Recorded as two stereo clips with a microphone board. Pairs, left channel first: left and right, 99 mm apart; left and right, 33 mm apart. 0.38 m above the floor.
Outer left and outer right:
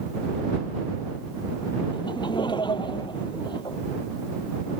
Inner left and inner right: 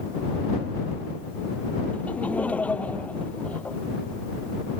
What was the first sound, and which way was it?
Laughter, 50° left (ahead or behind).